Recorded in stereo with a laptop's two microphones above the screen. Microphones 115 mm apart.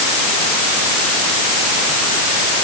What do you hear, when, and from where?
Only background noise.